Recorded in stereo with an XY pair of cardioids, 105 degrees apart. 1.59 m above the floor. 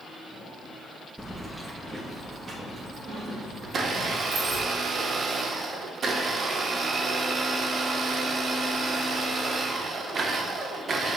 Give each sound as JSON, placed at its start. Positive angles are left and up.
{"t": 1.2, "sound": "keys jangling", "azimuth_deg": -5, "distance_m": 1.6}
{"t": 3.6, "sound": "a blender", "azimuth_deg": -45, "distance_m": 1.2}